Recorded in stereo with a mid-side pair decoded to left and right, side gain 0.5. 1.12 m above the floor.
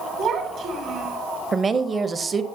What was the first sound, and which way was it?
A child speaking, 65° right.